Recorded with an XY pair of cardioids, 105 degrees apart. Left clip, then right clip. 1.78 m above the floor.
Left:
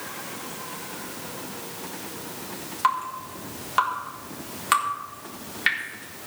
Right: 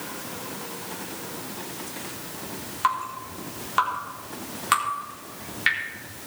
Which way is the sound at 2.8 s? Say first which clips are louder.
Left 1 dB; 5° left.